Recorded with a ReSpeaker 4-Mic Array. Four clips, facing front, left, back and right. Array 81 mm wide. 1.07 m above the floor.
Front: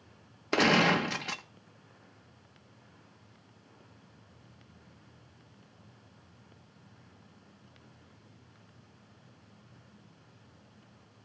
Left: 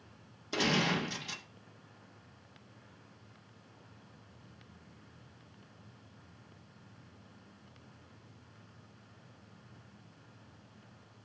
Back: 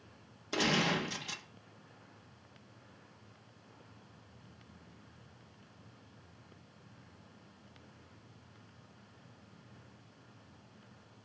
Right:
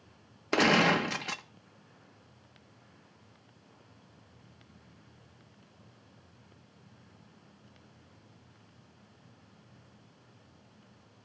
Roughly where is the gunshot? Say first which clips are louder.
Right 7 dB, front 7 dB; ahead right.